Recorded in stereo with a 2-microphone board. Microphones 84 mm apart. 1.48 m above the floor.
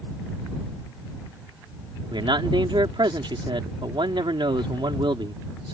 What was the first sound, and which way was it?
A man speaking, 85° right.